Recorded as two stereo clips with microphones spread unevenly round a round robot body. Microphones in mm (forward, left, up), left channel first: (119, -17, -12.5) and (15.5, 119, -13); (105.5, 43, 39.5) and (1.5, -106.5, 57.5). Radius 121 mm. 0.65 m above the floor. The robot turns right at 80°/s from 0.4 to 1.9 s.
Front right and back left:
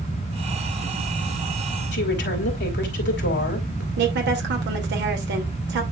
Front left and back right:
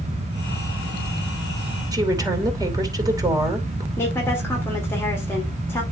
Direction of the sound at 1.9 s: 55° right.